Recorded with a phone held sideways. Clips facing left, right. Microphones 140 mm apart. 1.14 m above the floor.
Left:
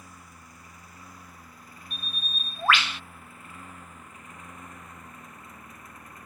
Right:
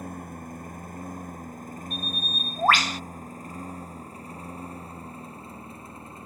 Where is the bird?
45° right (ahead or behind).